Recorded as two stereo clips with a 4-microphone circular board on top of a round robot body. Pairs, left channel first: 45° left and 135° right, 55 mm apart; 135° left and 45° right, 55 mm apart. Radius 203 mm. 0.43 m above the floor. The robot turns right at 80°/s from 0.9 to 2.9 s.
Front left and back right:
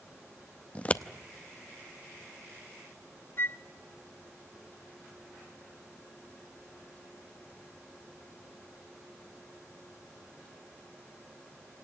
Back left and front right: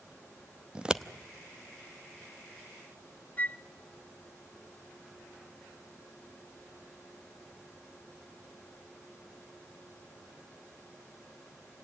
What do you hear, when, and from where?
0.8 s scissors: 10° left, 1.2 m; by 1.0 s 25° left, 1.2 m
3.4 s a flute: 80° left, 0.7 m